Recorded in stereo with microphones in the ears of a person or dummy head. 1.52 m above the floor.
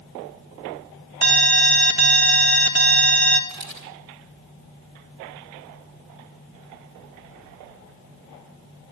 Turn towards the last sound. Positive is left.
turn(degrees=-50)  # may be behind; listen again after turning